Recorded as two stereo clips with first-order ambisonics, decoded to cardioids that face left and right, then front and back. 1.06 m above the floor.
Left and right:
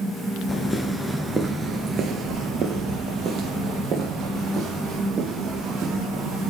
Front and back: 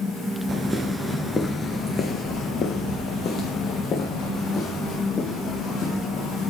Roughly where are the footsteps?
Behind left.